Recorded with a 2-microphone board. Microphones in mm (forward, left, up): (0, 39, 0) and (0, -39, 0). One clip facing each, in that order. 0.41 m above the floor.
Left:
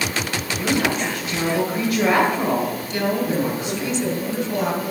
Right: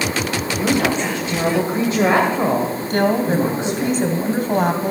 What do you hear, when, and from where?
0.6 s a woman speaking: 30° right (ahead or behind), 1.9 m
2.9 s a woman speaking: 50° right (ahead or behind), 2 m